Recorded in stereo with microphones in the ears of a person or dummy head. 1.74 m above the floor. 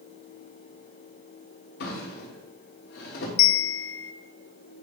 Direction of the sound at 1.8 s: 60° left (ahead or behind).